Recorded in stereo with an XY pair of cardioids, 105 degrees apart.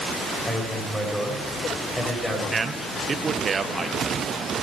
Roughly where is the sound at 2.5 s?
Ahead right.